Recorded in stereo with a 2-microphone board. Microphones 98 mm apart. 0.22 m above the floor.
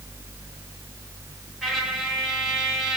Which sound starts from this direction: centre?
A trumpet, at 1.6 s.